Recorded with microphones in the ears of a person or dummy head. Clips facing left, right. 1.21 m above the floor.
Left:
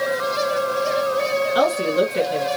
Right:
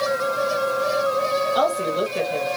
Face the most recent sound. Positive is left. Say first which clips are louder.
# left 3 dB
turn(degrees=15)  # may be behind; listen again after turning